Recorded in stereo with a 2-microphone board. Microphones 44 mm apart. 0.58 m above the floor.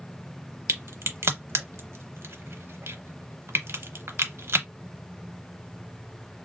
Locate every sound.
0.7 s a crack: 75° right (ahead or behind), 0.8 m